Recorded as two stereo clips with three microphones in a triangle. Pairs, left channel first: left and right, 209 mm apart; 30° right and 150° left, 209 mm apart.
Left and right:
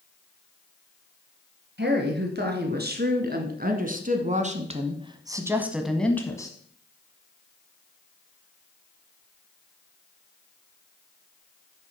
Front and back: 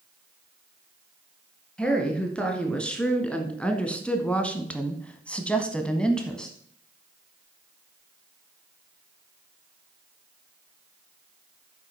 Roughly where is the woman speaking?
Behind right.